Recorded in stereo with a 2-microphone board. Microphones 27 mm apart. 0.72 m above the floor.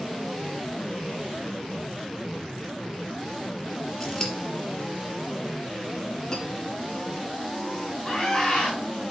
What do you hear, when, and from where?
4.0 s scissors: 25° left (ahead or behind), 4 m
6.3 s cutlery clinking: 35° left (ahead or behind), 5.5 m
8.0 s a scream: 10° left (ahead or behind), 4 m